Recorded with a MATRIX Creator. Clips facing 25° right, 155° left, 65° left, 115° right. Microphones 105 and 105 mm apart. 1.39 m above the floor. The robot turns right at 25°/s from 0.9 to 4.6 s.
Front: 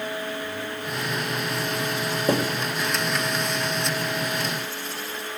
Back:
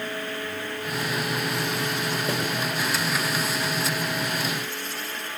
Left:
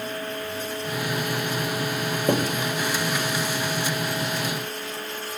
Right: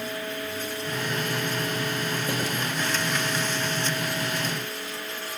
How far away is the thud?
About 4.5 m.